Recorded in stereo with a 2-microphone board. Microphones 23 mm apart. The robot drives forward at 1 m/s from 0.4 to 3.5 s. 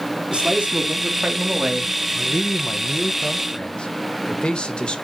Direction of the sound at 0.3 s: 55° right (ahead or behind).